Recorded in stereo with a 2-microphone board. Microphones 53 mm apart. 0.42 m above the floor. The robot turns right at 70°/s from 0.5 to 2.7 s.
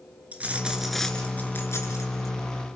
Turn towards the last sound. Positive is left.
turn(degrees=125)